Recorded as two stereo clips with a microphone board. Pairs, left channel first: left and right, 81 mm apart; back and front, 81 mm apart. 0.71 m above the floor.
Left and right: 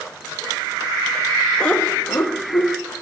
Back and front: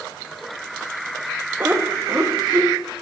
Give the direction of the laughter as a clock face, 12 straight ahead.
11 o'clock.